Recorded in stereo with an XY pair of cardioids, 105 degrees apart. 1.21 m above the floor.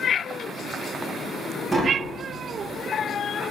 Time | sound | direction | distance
1.7 | tapping | 20° right | 0.9 m